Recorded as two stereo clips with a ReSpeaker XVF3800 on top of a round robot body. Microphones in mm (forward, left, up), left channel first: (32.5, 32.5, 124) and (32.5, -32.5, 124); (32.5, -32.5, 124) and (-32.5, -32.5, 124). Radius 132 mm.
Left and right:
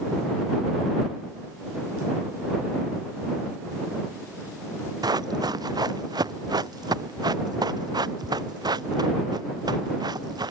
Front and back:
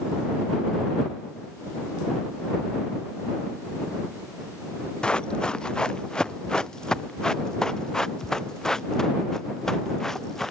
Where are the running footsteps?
75° right; by 10.5 s 80° right.